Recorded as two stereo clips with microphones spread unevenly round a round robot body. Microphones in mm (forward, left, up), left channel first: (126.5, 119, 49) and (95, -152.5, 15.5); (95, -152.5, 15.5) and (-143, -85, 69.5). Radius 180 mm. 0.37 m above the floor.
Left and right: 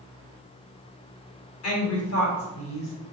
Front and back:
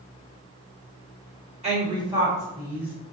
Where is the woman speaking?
95° left, 1.8 m; by 2.9 s 50° left, 1.8 m.